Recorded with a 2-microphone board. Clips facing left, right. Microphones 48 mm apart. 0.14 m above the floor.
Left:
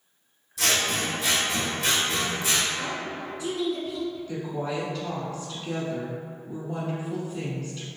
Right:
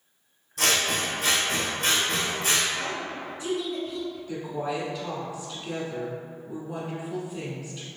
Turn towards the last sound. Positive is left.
turn(degrees=-15)  # may be behind; listen again after turning